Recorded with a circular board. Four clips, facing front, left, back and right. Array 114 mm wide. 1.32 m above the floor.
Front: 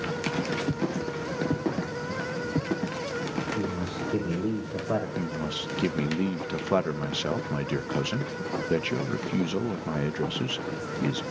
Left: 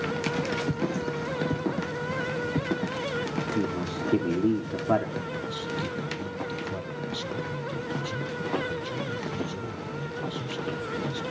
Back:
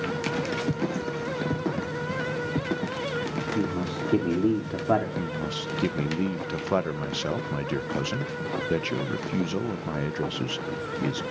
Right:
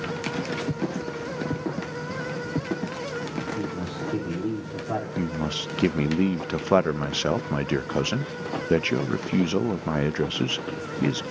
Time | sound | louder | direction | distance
3.5 | a man speaking | left 2 dB, back 3 dB | 145° left | 2.5 m
5.2 | a man speaking | right 4 dB, back 1 dB | 90° right | 0.6 m